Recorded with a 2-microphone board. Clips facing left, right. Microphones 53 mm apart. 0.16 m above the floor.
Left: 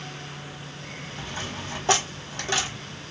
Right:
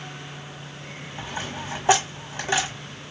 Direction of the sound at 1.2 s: 15° right (ahead or behind).